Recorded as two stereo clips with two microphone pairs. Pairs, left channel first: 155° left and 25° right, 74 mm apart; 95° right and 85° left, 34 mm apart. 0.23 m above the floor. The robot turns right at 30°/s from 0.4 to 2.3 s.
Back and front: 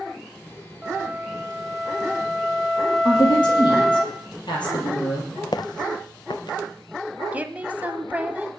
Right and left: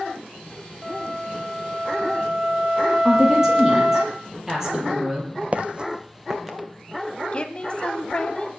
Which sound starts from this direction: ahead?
A flute, at 0.8 s.